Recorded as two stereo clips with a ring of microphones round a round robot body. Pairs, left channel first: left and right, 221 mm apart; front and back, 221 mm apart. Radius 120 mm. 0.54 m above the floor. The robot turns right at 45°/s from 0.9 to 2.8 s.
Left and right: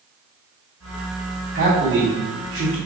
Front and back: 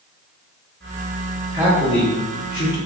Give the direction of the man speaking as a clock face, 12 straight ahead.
4 o'clock.